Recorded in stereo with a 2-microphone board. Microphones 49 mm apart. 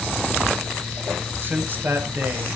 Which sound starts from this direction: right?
A man speaking, at 1.4 s.